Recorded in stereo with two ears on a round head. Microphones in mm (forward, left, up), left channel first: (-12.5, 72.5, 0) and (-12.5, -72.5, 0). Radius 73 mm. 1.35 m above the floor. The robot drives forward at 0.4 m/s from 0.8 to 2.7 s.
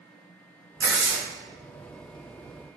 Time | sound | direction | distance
0.8 | tearing paper | 20° right (ahead or behind) | 0.8 m